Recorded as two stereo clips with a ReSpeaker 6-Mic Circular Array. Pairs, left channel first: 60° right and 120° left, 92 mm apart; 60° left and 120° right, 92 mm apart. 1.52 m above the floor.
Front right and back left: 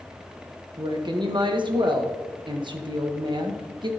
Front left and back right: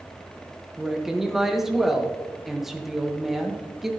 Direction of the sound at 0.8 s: 155° left.